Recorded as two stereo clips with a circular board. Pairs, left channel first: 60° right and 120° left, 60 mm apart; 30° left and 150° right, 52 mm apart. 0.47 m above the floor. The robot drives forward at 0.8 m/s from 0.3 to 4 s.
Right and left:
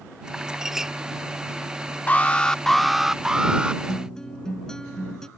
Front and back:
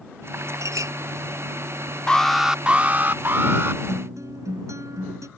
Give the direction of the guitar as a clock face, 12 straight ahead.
5 o'clock.